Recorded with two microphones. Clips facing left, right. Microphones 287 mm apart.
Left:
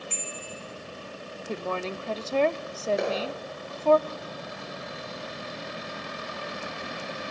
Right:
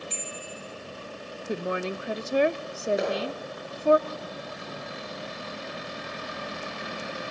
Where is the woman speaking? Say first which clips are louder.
Right 2 dB; 15° right (ahead or behind), 0.8 m.